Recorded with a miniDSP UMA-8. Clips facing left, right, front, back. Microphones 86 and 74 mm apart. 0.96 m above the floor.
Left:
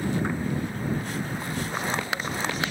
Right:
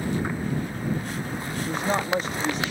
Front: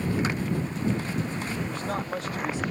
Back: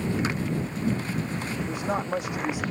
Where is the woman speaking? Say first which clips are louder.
Right 7 dB, back 3 dB; 110° right.